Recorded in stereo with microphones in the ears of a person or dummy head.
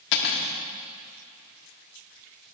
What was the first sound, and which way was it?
Cutlery clinking, 60° left (ahead or behind).